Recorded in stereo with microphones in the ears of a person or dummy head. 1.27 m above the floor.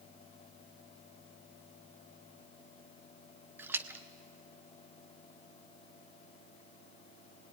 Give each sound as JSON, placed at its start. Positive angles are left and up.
{"t": 3.6, "sound": "a splash", "side_deg": -10, "distance_m": 0.8}